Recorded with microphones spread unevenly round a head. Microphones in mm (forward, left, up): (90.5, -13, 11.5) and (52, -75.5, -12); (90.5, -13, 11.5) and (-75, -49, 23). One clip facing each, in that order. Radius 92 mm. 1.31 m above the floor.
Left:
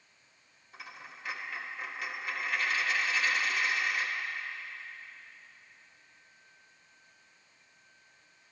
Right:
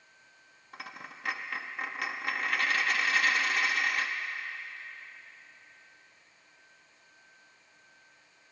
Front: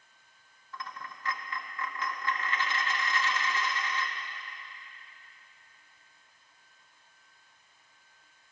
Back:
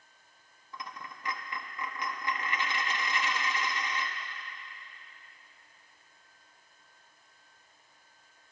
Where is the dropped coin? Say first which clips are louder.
Right 3 dB, front 1 dB; 110° right, 0.8 m.